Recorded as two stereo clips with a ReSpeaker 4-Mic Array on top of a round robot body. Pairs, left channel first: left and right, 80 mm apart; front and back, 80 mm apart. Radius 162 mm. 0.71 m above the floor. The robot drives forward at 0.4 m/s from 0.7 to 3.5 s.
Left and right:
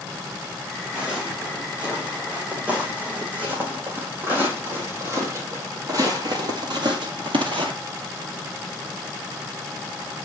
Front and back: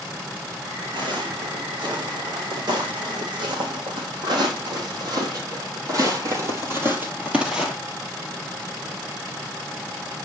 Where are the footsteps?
165° right, 3.5 m; by 7.7 s 95° right, 1.4 m.